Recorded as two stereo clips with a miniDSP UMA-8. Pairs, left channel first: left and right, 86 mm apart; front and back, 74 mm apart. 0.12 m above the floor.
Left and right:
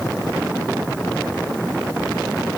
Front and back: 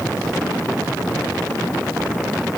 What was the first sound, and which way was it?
Only background noise.